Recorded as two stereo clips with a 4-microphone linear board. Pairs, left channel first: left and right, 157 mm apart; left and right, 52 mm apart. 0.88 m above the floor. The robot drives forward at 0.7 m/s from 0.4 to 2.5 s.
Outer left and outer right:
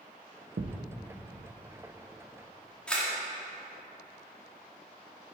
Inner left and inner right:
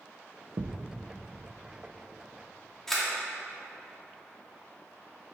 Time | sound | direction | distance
0.6 | a thud | 75° right (ahead or behind) | 0.5 m
2.9 | a camera shutter | 5° left (ahead or behind) | 2.0 m